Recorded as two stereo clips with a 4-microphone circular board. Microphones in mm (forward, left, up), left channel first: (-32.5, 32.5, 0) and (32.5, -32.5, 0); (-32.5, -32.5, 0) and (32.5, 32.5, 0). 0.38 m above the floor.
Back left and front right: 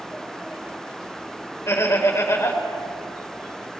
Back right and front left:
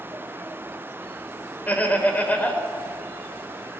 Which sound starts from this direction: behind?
Laughter, at 1.7 s.